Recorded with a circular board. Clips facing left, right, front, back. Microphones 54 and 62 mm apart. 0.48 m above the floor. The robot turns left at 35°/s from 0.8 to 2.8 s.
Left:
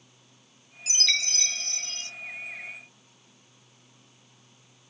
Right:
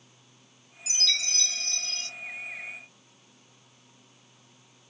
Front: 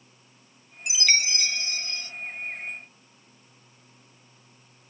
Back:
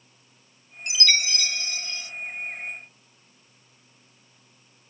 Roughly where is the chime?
Left.